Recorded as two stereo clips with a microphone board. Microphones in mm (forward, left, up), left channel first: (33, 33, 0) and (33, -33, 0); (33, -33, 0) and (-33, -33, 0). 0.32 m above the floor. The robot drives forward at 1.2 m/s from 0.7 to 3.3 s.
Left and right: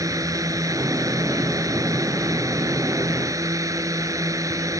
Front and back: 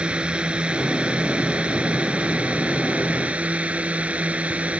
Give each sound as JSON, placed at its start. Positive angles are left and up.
{"t": 0.0, "sound": "a drone", "azimuth_deg": -105}